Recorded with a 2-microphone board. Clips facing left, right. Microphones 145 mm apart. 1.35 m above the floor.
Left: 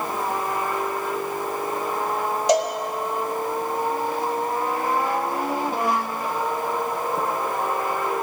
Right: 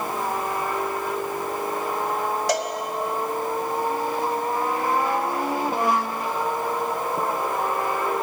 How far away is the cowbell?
About 1.1 m.